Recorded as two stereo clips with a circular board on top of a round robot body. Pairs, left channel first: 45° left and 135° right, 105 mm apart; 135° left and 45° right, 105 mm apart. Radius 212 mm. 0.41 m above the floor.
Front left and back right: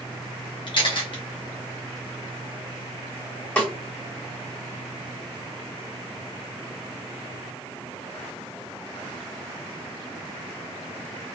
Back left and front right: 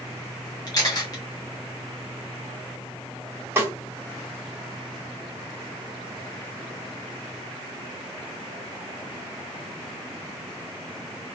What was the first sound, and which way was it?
A camera shutter, 80° left.